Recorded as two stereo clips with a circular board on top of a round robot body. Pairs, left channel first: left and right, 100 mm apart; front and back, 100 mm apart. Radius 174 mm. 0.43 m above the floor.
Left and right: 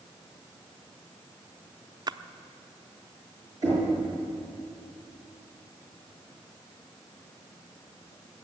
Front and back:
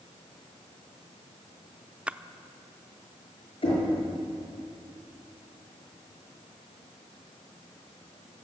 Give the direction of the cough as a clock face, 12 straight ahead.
No cough in this recording.